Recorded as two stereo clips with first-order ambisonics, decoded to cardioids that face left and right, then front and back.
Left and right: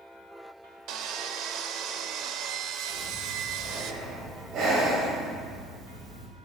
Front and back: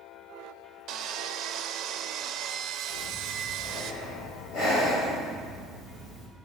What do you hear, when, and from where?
0.9 s sawing: 130° right, 0.5 m
2.9 s breathing: 50° right, 3 m